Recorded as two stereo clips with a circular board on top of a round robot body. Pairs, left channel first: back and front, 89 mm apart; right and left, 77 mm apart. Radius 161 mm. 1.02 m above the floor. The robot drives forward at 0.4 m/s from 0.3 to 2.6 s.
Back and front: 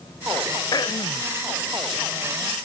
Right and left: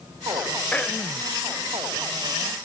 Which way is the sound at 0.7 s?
160° right.